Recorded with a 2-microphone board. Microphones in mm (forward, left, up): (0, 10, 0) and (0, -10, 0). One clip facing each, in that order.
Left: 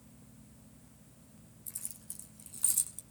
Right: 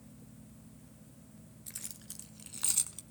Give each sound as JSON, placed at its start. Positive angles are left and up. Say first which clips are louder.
{"t": 1.7, "sound": "keys jangling", "louder": "right 1 dB", "side_deg": -40, "distance_m": 1.8}